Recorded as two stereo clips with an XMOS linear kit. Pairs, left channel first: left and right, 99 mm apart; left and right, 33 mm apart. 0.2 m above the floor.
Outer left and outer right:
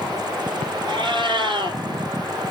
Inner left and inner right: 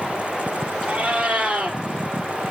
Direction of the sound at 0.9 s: 50° right (ahead or behind).